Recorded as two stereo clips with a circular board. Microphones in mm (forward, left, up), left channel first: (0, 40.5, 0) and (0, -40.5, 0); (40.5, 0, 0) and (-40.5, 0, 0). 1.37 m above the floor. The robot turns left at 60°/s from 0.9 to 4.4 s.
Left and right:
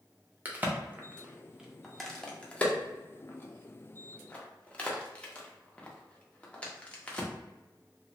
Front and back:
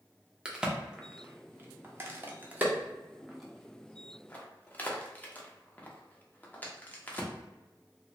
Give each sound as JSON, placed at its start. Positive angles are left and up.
{"t": 0.5, "sound": "a crack", "azimuth_deg": -115, "distance_m": 0.5}